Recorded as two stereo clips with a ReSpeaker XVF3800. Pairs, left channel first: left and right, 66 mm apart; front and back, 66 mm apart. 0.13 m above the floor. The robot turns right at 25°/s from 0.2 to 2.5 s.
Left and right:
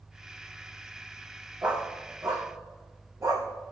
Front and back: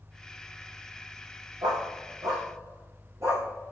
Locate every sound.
1.6 s a dog barking: 160° right, 3.5 m; by 3.5 s 135° right, 3.5 m